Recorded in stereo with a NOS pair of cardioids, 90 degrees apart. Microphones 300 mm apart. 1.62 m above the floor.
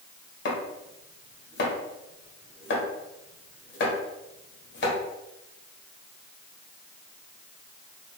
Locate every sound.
0.5 s chopping: 40° left, 1.1 m